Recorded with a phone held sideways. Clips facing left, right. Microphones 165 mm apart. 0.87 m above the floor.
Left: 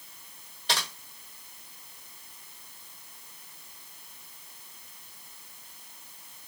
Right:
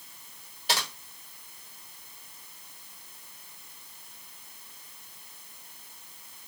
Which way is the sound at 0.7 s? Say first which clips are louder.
Right 1 dB; 5° right (ahead or behind).